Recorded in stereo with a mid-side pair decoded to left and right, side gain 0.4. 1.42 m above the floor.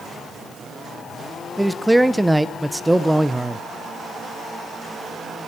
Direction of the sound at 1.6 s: 5° right.